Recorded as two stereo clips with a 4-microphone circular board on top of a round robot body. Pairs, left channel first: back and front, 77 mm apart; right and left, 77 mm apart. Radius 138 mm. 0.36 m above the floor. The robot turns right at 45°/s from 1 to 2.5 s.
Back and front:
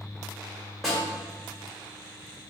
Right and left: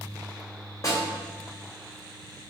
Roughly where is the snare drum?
Right.